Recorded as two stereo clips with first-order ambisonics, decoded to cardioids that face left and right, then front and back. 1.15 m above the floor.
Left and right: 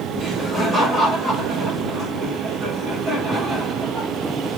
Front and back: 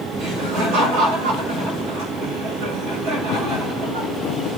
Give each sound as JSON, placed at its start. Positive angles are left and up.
{"t": 0.2, "sound": "laughter", "azimuth_deg": -160, "distance_m": 5.0}